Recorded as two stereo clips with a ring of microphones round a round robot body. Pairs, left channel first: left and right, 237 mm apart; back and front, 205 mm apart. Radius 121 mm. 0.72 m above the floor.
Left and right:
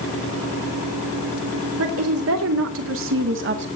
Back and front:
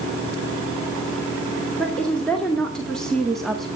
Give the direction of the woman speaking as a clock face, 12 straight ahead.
3 o'clock.